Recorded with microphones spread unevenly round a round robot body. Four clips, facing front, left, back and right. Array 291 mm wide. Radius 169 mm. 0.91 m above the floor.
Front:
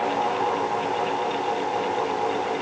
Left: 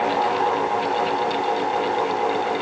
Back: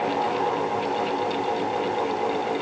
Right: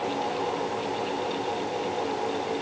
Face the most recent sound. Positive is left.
No sound to turn to.